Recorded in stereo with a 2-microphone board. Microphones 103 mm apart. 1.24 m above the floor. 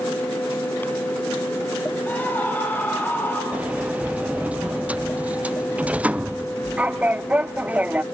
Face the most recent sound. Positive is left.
turn(degrees=-15)  # may be behind; listen again after turning